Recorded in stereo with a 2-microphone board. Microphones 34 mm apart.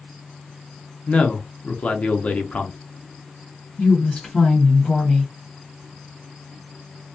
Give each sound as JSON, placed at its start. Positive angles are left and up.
{"t": 1.1, "sound": "a man speaking", "side_deg": 40, "distance_m": 0.6}
{"t": 3.8, "sound": "a woman speaking", "side_deg": 20, "distance_m": 1.5}